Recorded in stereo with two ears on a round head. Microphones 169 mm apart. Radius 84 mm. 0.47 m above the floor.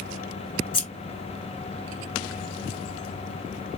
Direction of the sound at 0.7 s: 25° left (ahead or behind).